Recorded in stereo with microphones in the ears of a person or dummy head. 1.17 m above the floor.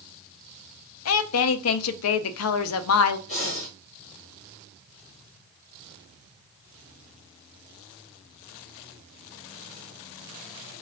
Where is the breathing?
30° left (ahead or behind), 1.5 m.